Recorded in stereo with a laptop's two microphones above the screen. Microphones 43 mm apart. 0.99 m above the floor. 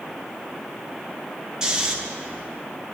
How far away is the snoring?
About 0.9 m.